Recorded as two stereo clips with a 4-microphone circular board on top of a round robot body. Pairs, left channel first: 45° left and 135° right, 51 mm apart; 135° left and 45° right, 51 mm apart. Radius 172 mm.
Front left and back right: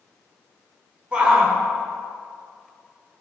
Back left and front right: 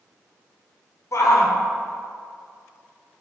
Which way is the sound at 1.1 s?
155° left.